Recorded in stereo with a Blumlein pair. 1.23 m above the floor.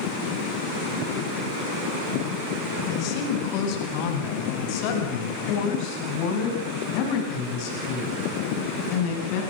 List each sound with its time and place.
2.9 s a woman speaking: 40° left, 6 m; by 9.4 s 45° left, 10 m